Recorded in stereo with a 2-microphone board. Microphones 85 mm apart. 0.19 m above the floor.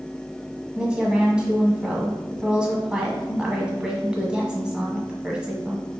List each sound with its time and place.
0.8 s a woman speaking: 10° right (ahead or behind), 1.2 m